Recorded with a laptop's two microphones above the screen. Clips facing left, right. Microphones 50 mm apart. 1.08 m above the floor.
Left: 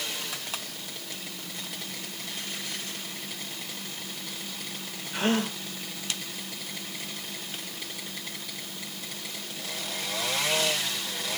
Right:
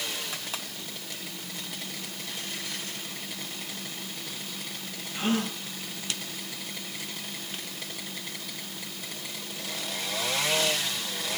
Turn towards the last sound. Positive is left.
turn(degrees=75)  # may be behind; listen again after turning